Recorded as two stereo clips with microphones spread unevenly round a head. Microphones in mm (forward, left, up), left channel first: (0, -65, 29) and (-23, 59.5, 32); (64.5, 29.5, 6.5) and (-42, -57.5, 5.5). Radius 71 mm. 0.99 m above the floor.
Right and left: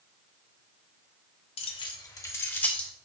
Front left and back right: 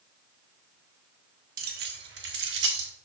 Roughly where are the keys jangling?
Behind right.